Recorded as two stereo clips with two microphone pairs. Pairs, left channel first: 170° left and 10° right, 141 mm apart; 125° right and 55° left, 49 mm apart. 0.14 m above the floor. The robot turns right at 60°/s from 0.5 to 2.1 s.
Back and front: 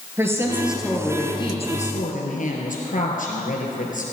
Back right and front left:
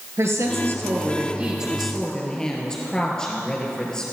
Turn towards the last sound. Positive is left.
turn(degrees=160)